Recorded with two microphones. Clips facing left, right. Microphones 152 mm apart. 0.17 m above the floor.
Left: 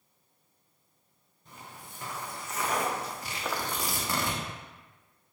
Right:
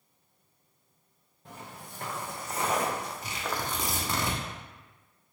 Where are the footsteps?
70° right (ahead or behind), 0.9 m; by 4.2 s 20° left (ahead or behind), 1.1 m.